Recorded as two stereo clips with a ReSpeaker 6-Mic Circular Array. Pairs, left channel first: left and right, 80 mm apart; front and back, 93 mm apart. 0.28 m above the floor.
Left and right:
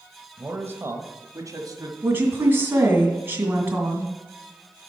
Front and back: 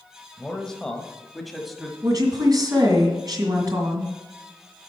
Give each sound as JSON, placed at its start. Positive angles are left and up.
{"t": 0.4, "sound": "a man speaking", "azimuth_deg": -70, "distance_m": 0.9}
{"t": 2.0, "sound": "a woman speaking", "azimuth_deg": -145, "distance_m": 2.0}